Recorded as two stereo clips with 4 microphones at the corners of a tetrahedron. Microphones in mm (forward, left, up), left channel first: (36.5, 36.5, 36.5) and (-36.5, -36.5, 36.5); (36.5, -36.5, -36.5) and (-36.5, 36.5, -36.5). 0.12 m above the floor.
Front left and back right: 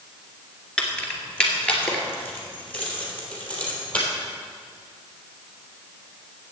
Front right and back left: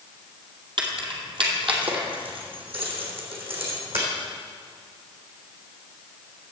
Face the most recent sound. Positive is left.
turn(degrees=120)